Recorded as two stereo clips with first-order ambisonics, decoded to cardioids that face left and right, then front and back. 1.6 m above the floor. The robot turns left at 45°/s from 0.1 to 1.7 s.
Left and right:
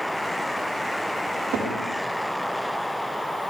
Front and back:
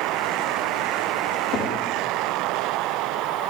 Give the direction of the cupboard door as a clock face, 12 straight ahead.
1 o'clock.